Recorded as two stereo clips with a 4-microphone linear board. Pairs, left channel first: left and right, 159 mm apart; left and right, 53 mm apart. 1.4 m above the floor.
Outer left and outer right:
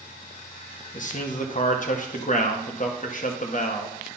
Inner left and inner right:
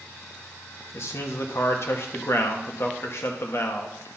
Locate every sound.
0.9 s a man speaking: 55° left (ahead or behind), 1.1 m